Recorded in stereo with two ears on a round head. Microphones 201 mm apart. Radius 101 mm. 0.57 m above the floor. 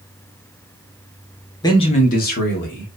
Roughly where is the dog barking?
I don't hear a dog barking.